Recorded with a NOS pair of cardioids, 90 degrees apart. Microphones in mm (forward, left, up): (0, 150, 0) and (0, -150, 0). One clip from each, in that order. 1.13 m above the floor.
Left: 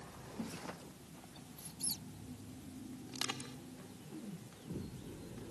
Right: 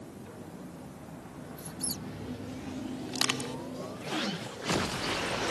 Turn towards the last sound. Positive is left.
turn(degrees=-60)